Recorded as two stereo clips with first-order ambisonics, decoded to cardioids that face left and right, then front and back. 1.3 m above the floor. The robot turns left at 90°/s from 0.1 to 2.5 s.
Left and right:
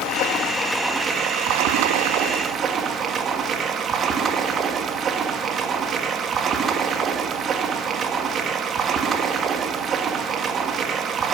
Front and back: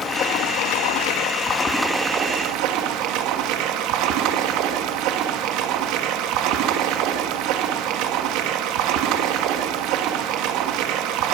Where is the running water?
65° left, 1.5 m; by 11.3 s 155° right, 1.5 m.